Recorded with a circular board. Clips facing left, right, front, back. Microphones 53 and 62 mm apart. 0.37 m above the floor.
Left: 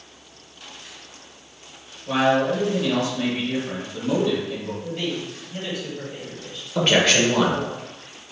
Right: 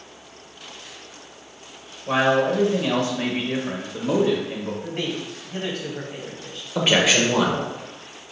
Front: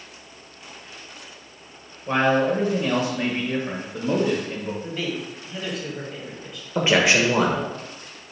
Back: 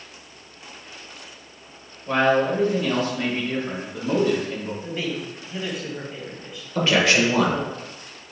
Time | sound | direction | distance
2.1 | a man speaking | 60° right | 1.2 m
4.8 | a man speaking | 95° right | 2 m
6.8 | a man speaking | 20° right | 1.0 m